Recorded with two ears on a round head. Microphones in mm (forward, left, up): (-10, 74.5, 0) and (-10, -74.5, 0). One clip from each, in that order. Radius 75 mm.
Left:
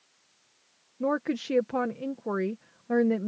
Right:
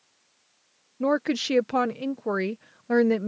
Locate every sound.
1.0 s a woman speaking: 80° right